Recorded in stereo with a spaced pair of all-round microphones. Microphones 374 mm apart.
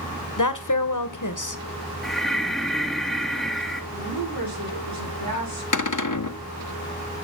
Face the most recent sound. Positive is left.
turn(degrees=55)  # may be behind; listen again after turning